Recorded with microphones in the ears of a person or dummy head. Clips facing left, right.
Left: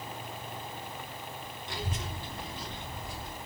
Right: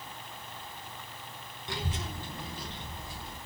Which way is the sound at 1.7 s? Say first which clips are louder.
Right 2 dB; 50° right (ahead or behind).